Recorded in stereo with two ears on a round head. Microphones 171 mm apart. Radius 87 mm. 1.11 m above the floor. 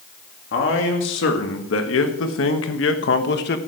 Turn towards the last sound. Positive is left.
turn(degrees=50)  # may be behind; listen again after turning